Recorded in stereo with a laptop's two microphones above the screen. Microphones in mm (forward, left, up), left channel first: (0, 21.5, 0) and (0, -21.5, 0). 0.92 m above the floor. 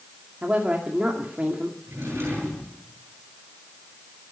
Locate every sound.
0.4 s a woman speaking: 35° right (ahead or behind), 2.5 m
1.9 s a drawer: 65° right (ahead or behind), 9.5 m